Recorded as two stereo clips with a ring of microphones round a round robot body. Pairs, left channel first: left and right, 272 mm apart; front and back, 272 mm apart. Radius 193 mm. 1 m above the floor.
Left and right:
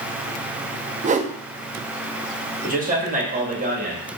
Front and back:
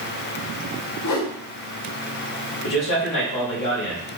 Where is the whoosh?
25° right, 0.5 m.